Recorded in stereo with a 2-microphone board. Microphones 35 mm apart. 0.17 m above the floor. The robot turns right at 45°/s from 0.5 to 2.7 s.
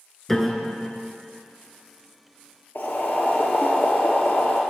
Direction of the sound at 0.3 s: 5° left (ahead or behind).